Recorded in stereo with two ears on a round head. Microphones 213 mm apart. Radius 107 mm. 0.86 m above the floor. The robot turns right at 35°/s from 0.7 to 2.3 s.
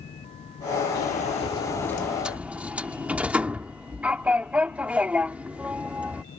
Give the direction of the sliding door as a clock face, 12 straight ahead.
7 o'clock.